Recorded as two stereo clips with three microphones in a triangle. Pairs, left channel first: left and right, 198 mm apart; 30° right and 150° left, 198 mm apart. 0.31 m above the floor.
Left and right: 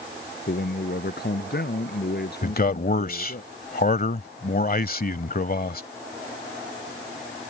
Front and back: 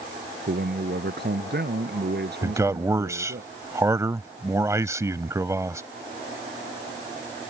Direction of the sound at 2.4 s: 80° left.